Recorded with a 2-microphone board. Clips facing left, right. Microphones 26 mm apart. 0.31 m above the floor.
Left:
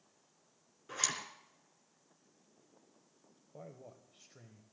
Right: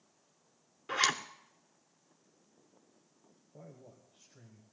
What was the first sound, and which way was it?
A zipper, 50° right (ahead or behind).